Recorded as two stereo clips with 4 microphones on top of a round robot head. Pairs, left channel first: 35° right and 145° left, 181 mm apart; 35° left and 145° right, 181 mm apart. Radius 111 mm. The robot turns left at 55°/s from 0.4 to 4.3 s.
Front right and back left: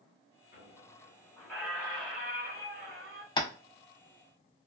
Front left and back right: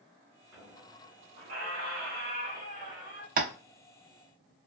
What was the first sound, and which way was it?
A squeak, 65° right.